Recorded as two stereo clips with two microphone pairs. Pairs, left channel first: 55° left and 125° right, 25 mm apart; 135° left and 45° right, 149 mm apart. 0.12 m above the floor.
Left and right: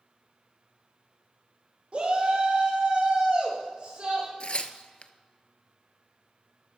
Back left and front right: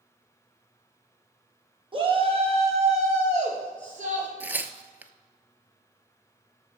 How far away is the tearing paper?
About 0.6 m.